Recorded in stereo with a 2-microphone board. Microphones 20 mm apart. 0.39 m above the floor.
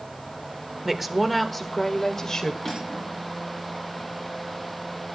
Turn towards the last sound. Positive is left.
turn(degrees=0)  # may be behind; listen again after turning